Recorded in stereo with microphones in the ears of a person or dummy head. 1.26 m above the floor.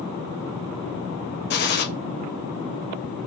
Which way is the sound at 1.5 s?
50° left (ahead or behind).